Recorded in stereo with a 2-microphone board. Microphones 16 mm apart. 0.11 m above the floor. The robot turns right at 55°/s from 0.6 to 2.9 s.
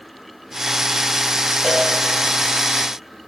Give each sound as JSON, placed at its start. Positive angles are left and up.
{"t": 1.6, "sound": "a cowbell", "side_deg": 80, "distance_m": 9.5}